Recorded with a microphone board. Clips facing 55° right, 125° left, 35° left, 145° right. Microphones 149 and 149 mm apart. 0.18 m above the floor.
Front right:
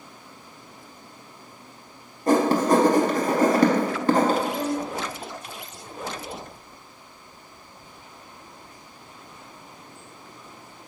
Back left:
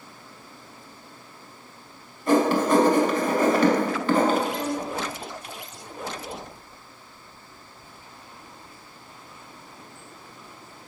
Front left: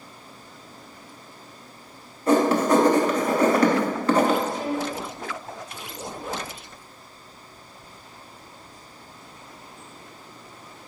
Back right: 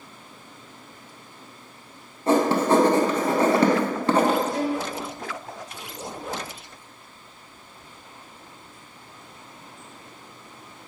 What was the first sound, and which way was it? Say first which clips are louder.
Writing: front right 1 dB, front left 1 dB; 90° right.